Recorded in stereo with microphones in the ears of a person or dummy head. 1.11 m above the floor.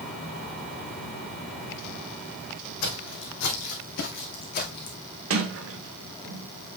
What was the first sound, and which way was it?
Footsteps, 60° left (ahead or behind).